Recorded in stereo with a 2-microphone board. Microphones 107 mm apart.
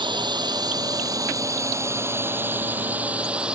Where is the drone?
45° right (ahead or behind); by 3.6 s 10° right (ahead or behind).